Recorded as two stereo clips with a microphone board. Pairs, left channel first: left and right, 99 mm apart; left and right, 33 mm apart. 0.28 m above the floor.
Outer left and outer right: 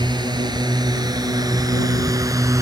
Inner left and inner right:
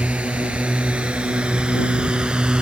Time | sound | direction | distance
0.0 | a drone | 45° right (ahead or behind) | ?